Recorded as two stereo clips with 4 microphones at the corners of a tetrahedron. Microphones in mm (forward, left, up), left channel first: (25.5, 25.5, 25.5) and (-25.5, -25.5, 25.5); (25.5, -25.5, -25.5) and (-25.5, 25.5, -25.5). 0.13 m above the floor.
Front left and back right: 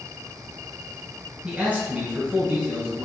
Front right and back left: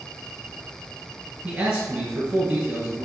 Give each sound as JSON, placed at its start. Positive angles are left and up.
{"t": 1.4, "sound": "a man speaking", "azimuth_deg": -175, "distance_m": 1.5}